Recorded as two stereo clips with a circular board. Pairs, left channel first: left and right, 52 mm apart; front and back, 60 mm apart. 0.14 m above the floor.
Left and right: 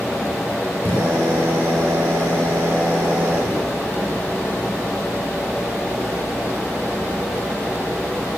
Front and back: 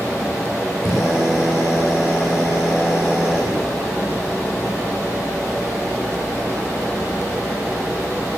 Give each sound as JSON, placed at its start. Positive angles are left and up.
{"t": 0.8, "sound": "a drill", "azimuth_deg": -95, "distance_m": 9.0}